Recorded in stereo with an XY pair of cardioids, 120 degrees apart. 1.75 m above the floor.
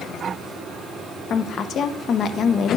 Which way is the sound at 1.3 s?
45° left.